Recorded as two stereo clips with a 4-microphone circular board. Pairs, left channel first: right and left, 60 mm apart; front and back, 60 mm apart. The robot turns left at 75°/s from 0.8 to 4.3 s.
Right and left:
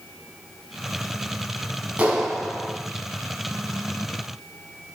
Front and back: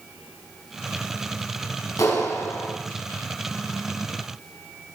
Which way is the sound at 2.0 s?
30° left.